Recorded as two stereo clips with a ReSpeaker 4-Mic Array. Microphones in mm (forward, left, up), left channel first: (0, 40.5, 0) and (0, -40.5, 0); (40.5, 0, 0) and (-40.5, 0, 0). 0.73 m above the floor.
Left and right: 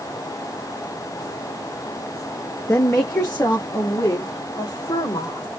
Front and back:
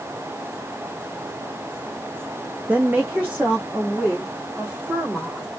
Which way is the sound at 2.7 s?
125° left.